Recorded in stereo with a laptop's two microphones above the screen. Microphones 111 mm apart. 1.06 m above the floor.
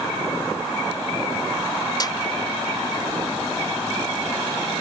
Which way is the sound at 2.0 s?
40° left (ahead or behind).